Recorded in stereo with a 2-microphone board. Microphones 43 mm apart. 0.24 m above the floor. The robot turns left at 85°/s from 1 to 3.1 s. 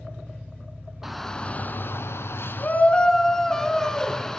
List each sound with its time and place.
0.0 s an engine running: 15° left, 7 m; by 4.4 s 165° right, 7 m
1.0 s a shout: 175° right, 2.5 m; by 4.4 s 10° left, 2.5 m